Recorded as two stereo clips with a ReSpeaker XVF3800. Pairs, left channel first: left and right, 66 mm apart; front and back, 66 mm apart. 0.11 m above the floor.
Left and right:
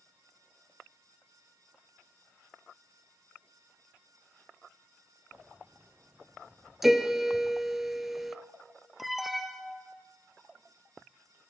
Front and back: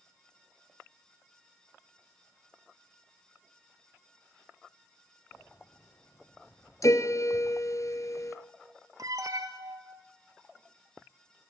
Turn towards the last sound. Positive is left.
turn(degrees=-175)